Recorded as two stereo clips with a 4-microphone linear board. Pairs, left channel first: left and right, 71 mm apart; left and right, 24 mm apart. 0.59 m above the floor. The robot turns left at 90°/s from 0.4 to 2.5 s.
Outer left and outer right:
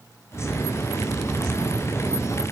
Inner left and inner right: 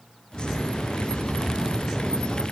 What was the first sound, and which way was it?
Only background noise.